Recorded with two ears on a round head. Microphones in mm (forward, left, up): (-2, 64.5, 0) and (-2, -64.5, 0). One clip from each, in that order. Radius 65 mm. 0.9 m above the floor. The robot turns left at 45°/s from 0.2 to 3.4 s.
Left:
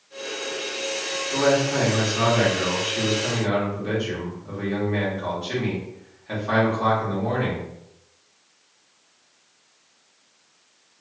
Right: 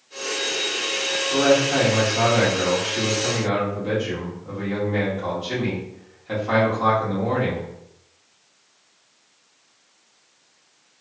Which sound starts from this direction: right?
A man speaking, at 1.3 s.